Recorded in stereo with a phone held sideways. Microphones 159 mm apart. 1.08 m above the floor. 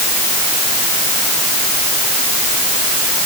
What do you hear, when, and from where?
Only background noise.